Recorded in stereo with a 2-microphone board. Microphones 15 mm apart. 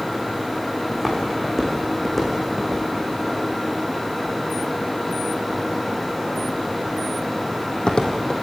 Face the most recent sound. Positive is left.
turn(degrees=70)  # may be behind; listen again after turning